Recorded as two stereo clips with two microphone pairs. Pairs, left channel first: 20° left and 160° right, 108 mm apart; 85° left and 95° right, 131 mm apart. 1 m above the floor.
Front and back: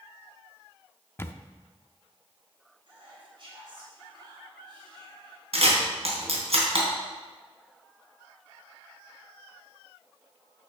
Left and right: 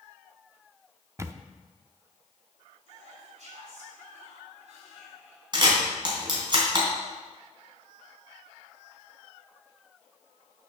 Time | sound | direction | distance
1.2 | a camera shutter | 40° right | 0.6 m
2.9 | whispering | 125° right | 3 m
5.5 | a camera shutter | 150° right | 3.5 m